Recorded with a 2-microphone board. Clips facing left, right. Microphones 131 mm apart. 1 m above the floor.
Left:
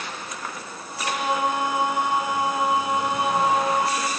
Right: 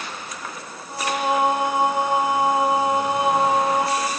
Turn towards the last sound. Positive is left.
turn(degrees=-30)  # may be behind; listen again after turning